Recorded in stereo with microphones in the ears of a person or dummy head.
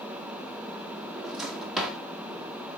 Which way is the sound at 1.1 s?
5° right (ahead or behind).